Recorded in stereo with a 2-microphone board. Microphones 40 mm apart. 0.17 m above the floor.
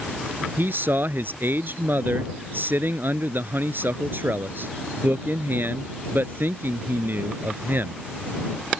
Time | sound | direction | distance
0.6 | a man speaking | 60° right (ahead or behind) | ?